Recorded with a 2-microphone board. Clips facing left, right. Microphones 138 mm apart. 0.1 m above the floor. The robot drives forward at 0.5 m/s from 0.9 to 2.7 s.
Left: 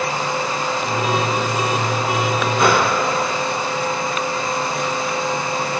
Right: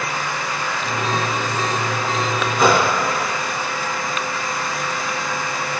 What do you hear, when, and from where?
2.6 s a gunshot: centre (ahead or behind), 5.5 m